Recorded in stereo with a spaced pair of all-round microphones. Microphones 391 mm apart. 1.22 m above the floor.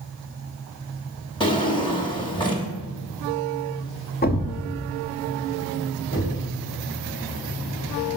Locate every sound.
1.4 s a drawer: 10° left (ahead or behind), 1.1 m
4.2 s a thud: 25° left (ahead or behind), 0.7 m
6.1 s knocking: 30° left (ahead or behind), 3.5 m